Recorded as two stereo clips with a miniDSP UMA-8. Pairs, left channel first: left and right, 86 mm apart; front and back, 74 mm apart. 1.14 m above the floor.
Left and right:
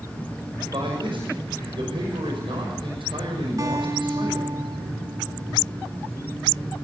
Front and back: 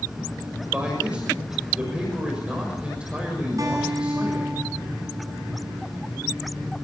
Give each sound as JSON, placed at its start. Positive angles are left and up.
{"t": 0.7, "sound": "a man speaking", "azimuth_deg": -105, "distance_m": 6.0}
{"t": 3.6, "sound": "a guitar", "azimuth_deg": -135, "distance_m": 9.0}